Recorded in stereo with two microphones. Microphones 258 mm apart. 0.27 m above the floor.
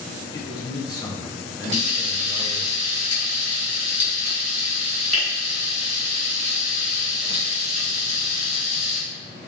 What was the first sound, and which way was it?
A man speaking, 15° left (ahead or behind).